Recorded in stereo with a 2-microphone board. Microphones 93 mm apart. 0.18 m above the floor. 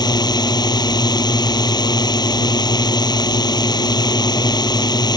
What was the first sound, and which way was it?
A drone, 50° left (ahead or behind).